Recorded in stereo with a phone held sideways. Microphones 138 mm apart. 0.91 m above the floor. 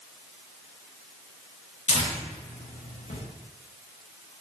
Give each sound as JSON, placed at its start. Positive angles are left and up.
{"t": 1.9, "sound": "tearing paper", "side_deg": 55, "distance_m": 1.2}